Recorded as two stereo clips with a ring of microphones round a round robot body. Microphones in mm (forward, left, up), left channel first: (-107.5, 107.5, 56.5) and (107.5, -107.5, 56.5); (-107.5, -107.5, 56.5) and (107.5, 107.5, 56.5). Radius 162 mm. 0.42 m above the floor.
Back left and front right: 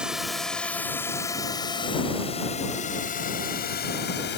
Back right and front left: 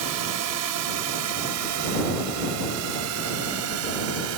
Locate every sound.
0.0 s a drone: 40° left; by 4.4 s 85° left